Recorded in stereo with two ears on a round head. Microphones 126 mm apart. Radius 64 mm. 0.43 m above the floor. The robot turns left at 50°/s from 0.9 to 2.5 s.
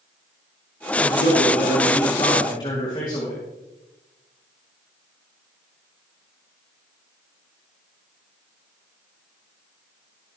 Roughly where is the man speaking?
Left.